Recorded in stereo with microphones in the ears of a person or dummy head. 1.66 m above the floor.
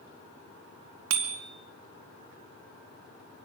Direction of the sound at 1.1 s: 70° right (ahead or behind).